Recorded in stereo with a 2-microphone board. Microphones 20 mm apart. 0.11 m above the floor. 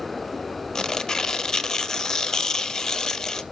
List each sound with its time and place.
0.8 s tearing paper: 25° left (ahead or behind), 0.5 m